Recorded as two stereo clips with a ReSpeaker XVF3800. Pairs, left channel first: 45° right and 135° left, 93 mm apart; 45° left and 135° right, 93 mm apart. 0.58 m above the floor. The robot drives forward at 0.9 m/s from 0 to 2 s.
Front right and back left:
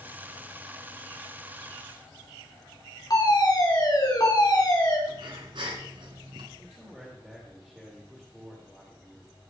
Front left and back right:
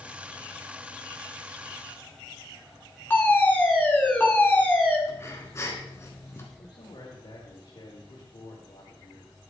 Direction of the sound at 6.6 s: 50° left.